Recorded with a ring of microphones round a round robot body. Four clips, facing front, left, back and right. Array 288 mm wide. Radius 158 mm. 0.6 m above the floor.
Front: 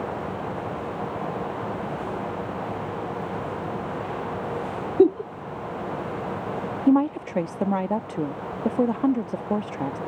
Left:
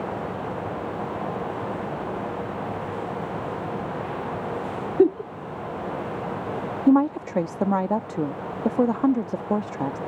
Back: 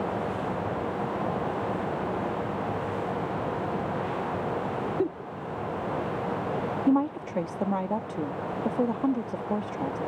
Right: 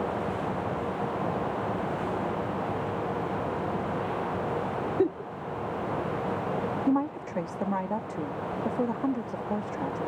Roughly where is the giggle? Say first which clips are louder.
Left 9 dB, front 17 dB; ahead left.